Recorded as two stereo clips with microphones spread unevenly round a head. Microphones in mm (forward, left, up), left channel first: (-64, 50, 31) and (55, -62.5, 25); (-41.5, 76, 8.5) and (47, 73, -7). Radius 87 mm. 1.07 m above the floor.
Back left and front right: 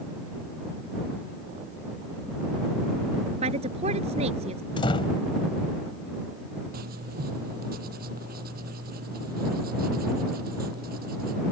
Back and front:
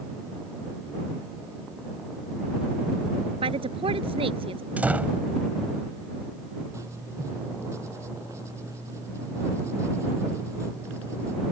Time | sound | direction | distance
3.4 | a woman speaking | 10° left | ?
4.8 | a door slam | 75° left | ?
6.7 | writing | 80° right | ?